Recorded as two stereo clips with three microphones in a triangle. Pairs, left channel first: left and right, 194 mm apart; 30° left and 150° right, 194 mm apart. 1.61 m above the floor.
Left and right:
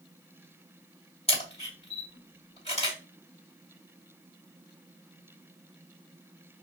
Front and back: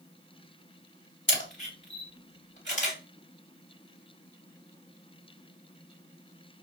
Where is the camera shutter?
35° left, 2.5 m.